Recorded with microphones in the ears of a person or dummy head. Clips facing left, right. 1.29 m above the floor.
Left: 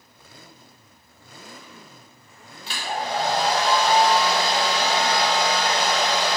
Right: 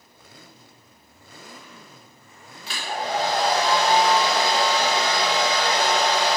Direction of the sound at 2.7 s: 25° left (ahead or behind).